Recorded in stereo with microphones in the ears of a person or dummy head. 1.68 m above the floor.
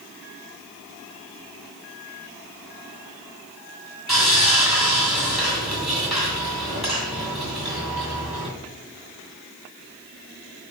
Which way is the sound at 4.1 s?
5° right (ahead or behind).